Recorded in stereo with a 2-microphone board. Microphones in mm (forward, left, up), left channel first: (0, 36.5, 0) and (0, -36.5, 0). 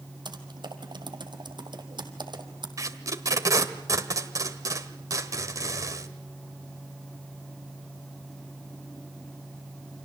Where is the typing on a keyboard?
75° right (ahead or behind), 2 m.